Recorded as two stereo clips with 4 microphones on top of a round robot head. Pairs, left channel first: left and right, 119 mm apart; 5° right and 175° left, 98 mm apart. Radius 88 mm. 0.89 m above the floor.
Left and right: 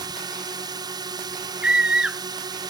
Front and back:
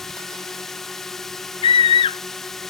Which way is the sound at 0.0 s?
90° right.